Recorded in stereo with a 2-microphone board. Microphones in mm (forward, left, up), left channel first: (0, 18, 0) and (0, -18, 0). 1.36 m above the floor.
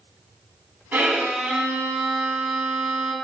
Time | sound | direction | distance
0.9 | a violin | 55° right (ahead or behind) | 2 m